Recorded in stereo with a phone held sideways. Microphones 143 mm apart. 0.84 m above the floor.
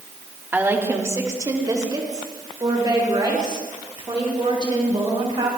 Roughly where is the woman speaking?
Centre.